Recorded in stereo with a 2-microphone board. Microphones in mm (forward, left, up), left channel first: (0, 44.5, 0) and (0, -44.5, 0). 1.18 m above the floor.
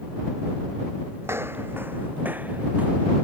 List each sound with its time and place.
1.2 s footsteps: 25° right (ahead or behind); by 3.1 s 15° right (ahead or behind)